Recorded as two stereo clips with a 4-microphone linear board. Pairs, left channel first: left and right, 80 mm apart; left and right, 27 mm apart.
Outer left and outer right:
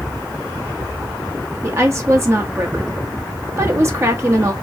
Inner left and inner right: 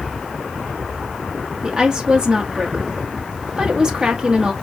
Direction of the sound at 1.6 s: 35° right (ahead or behind).